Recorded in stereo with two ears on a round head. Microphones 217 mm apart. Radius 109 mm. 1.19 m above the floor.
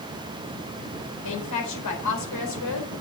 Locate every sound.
1.2 s a woman speaking: 85° left, 4 m